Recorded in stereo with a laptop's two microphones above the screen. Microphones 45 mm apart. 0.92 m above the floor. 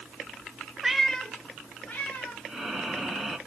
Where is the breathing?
5° right (ahead or behind), 2.5 m.